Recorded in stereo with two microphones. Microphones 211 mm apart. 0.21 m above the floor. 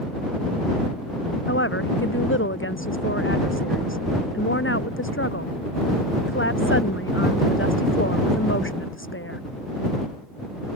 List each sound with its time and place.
1.5 s a woman speaking: 70° left (ahead or behind)